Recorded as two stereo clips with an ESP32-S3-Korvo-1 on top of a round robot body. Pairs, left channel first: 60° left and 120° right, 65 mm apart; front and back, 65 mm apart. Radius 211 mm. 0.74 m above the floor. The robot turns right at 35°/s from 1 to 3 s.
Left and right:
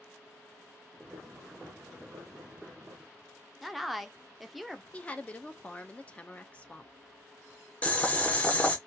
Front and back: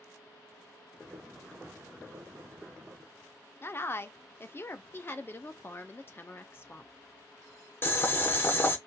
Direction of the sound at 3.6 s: 35° right.